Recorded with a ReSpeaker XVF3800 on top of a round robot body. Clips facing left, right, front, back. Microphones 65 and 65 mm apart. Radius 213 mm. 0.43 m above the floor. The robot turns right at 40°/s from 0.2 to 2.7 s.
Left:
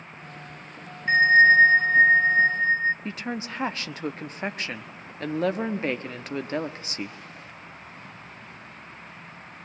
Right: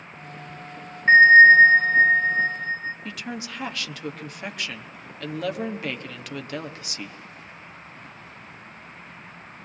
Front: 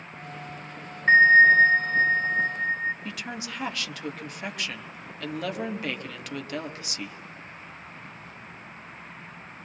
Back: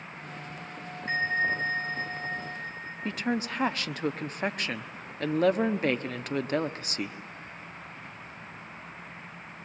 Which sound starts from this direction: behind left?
A woman speaking, at 3.0 s.